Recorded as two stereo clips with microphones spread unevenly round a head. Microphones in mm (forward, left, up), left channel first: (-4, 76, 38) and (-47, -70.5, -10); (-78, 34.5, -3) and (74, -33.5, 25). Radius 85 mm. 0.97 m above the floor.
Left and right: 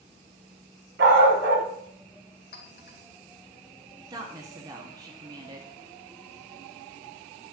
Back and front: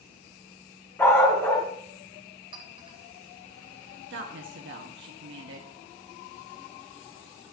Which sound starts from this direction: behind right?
A dog barking, at 1.0 s.